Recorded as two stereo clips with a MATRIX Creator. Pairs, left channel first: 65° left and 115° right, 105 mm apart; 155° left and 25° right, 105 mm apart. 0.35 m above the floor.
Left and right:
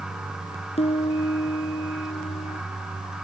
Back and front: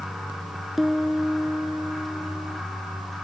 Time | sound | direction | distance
0.8 | a piano | 65° left | ?